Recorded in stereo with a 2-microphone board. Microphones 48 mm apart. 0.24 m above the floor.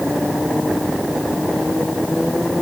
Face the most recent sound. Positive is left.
No sound to turn to.